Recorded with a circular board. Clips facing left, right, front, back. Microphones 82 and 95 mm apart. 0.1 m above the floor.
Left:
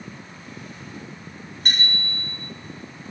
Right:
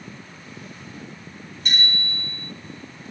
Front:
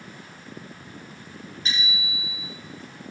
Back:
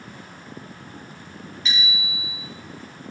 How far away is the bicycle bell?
About 9.5 m.